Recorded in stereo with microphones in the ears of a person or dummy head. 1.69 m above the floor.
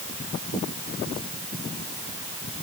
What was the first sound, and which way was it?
Only background noise.